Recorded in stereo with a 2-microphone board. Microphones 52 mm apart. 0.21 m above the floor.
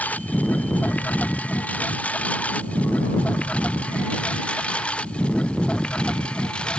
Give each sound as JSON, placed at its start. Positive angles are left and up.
{"t": 0.0, "sound": "a lawn mower", "side_deg": 30}